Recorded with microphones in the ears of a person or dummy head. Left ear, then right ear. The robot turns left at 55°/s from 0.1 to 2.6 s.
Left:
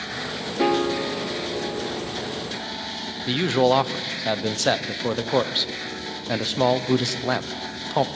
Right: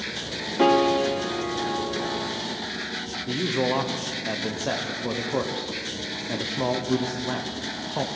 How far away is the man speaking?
About 0.7 m.